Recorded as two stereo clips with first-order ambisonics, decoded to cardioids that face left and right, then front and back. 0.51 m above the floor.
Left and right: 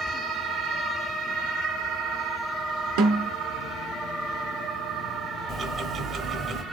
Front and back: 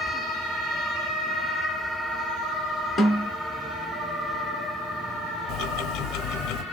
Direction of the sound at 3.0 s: 90° right.